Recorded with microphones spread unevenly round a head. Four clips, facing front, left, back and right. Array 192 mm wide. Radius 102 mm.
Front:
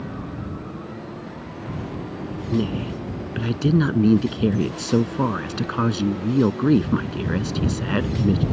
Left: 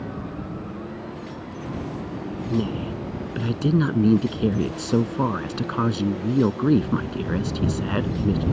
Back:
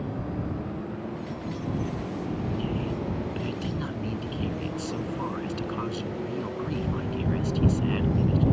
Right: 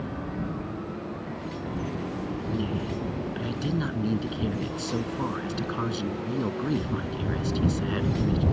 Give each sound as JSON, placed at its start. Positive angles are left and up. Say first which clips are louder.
{"t": 2.5, "sound": "a woman speaking", "louder": "left 6 dB, front 5 dB", "azimuth_deg": 35}